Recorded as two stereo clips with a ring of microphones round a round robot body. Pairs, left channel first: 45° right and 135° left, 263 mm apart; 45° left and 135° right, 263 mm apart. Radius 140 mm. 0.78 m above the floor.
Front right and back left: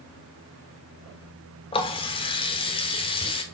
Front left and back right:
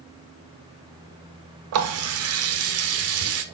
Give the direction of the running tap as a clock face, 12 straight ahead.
4 o'clock.